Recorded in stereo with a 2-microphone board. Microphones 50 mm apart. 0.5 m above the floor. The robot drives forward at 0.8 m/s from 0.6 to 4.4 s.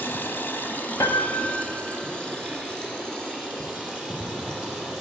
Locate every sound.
0.0 s running water: 45° left (ahead or behind), 1.0 m; by 5.0 s 10° left (ahead or behind), 4 m
1.0 s a piano: 80° left, 0.9 m; by 1.8 s 45° left (ahead or behind), 1.2 m